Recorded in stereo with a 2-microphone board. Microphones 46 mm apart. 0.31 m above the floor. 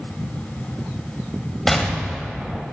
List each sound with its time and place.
1.7 s an explosion: 5° left (ahead or behind), 1.7 m